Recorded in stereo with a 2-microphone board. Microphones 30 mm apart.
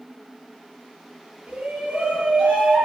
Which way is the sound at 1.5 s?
40° right (ahead or behind).